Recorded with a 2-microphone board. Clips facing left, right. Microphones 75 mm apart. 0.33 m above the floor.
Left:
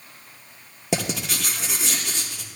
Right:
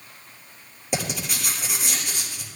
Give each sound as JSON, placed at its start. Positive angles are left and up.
{"t": 0.9, "sound": "writing", "side_deg": 75, "distance_m": 4.5}